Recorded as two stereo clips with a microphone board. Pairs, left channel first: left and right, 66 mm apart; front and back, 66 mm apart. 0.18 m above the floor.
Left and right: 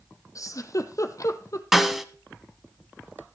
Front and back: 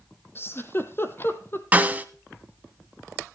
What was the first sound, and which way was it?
A giggle, 55° left.